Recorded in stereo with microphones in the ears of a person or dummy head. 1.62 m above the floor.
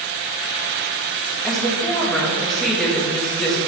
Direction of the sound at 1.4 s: Centre (ahead or behind).